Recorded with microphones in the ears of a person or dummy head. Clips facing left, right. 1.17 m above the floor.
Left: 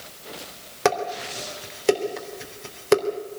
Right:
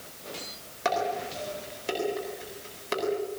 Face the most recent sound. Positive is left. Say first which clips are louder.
# left 4 dB
turn(degrees=60)  # may be behind; listen again after turning